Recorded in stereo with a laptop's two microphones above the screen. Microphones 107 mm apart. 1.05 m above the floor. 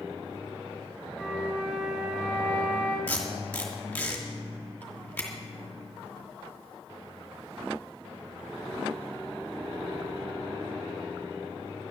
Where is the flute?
10° right (ahead or behind), 4 m.